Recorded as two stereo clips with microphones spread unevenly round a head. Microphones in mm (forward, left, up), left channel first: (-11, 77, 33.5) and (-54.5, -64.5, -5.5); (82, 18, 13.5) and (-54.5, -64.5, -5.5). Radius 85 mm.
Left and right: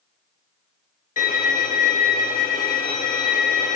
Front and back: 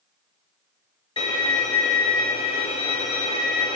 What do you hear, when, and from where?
1.2 s a violin: 90° left, 1.5 m